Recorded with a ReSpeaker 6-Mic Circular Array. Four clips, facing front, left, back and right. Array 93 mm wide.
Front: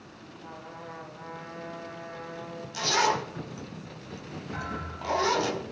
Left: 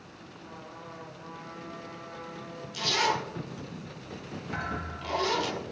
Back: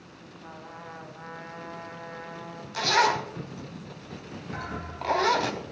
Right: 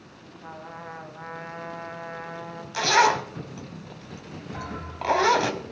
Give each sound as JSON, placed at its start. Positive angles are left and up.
{"t": 0.4, "sound": "a trumpet", "azimuth_deg": -100, "distance_m": 1.9}
{"t": 2.7, "sound": "a zipper", "azimuth_deg": -105, "distance_m": 1.0}
{"t": 4.5, "sound": "a thud", "azimuth_deg": 105, "distance_m": 5.0}